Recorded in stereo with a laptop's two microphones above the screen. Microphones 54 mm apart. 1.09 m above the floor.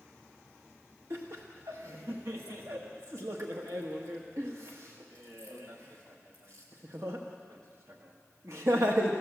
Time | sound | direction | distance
1.1 | laughter | 70° right (ahead or behind) | 1.3 m